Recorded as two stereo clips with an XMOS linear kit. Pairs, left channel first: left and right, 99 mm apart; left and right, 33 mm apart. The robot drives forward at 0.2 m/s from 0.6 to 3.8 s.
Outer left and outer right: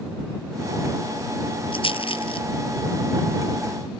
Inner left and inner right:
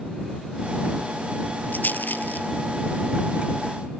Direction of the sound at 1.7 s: 60° left (ahead or behind).